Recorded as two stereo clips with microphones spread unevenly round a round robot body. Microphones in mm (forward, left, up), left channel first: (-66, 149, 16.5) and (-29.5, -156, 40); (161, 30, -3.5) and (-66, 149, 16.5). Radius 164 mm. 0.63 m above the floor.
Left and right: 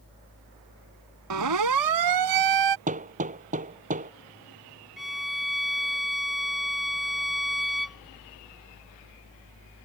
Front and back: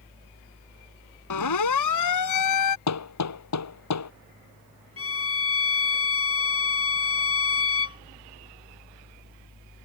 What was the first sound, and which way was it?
A siren, 40° right.